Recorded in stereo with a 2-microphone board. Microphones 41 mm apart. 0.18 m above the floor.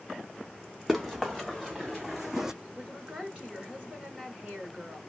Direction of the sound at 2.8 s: 25° right (ahead or behind).